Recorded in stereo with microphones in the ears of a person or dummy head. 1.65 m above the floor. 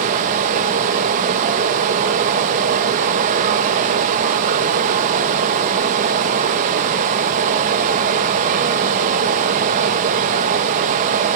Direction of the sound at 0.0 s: 40° right (ahead or behind).